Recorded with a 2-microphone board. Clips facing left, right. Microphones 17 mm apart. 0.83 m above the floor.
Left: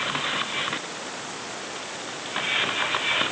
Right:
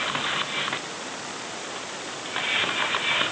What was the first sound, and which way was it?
Only background noise.